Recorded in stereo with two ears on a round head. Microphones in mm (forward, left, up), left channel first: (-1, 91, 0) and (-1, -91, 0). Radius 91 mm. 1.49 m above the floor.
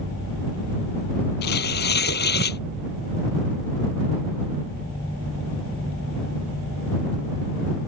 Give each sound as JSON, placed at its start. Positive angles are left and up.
{"t": 1.4, "sound": "tearing paper", "side_deg": 55}